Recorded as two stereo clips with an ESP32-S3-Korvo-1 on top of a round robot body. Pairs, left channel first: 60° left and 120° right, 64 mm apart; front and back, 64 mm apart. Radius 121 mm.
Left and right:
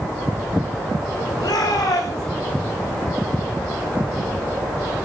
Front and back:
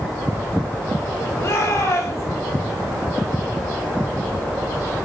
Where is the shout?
45° left, 7.5 m.